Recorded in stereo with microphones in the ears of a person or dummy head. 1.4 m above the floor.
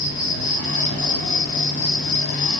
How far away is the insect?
About 1.8 m.